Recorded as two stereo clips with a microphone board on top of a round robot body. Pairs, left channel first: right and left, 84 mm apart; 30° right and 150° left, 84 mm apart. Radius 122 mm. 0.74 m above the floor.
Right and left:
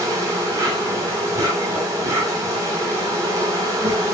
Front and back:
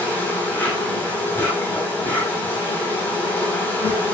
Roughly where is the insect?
Ahead left.